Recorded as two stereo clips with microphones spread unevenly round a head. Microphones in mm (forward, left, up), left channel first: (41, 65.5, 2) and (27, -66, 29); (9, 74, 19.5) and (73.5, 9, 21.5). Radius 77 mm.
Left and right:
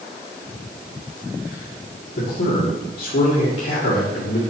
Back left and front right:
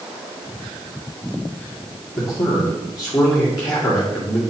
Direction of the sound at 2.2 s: 90° left.